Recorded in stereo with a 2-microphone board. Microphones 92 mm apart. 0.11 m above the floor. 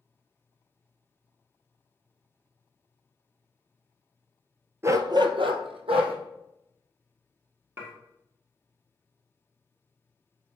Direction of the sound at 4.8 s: 30° right (ahead or behind).